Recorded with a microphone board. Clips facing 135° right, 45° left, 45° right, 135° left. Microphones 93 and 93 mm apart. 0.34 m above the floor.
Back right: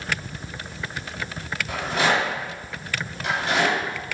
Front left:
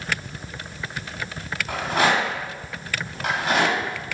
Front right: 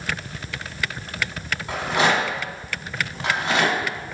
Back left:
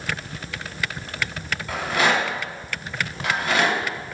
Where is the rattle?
20° left, 1.2 m.